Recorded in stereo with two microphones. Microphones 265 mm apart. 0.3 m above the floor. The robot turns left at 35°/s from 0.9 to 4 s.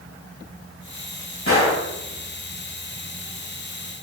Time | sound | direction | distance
1.5 | a gunshot | 55° left (ahead or behind) | 1.0 m